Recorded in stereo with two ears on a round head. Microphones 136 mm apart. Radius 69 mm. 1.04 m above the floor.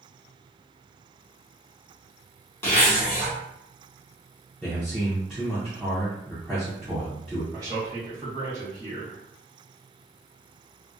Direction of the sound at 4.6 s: Centre (ahead or behind).